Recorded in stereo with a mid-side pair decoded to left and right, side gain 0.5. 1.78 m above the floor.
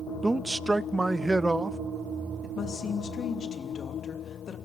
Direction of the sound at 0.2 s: 10° right.